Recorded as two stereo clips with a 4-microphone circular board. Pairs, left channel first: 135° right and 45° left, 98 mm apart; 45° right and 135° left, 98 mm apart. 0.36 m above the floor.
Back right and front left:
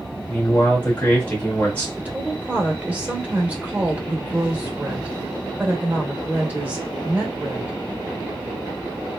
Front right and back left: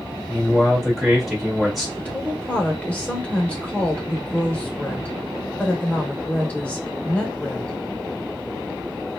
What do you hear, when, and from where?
0.3 s a man speaking: 140° right, 1.4 m
2.0 s a woman speaking: 5° left, 0.9 m